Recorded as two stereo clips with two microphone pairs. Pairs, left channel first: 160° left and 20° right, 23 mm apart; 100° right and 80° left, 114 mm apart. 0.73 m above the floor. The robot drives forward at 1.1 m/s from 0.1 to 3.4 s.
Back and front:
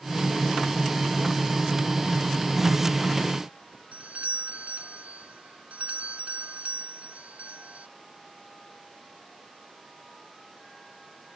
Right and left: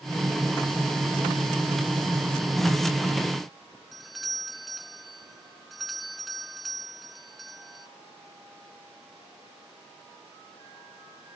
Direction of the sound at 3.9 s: 15° right.